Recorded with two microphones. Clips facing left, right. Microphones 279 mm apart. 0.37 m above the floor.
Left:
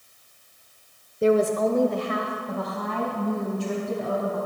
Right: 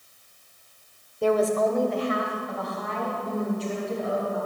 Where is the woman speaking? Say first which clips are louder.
Left 2 dB; 20° left (ahead or behind), 0.8 m; by 4.4 s 60° left (ahead or behind), 3 m.